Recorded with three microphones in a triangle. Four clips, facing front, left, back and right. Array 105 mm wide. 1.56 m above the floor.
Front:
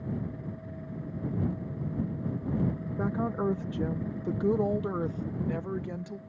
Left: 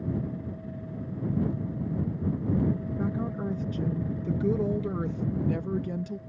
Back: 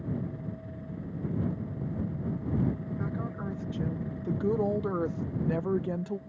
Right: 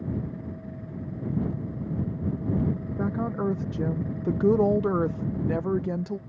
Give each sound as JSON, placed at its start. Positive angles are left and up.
{"t": 3.0, "sound": "a woman speaking", "azimuth_deg": -35}